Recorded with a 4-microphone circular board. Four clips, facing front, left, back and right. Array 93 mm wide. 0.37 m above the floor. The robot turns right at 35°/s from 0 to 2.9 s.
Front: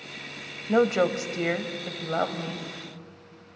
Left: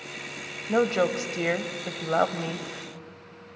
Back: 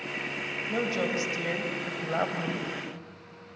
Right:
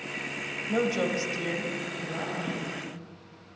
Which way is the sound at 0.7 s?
30° left.